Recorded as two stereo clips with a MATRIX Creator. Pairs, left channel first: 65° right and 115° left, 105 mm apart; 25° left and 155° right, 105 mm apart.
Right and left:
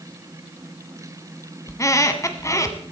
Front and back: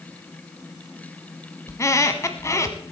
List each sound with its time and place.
1.7 s a squeak: 25° right, 1.2 m